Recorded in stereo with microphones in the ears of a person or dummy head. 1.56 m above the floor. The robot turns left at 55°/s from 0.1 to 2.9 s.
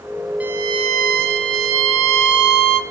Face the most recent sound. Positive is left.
turn(degrees=-145)